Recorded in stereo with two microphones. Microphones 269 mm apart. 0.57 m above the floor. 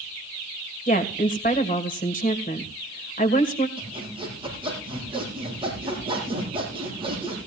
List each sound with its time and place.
0.9 s a woman speaking: 30° left (ahead or behind), 2.5 m
3.8 s sawing: 20° right (ahead or behind), 9.5 m